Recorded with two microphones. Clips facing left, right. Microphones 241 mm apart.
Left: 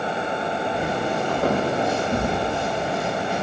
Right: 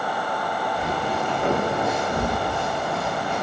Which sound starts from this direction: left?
Footsteps, at 0.7 s.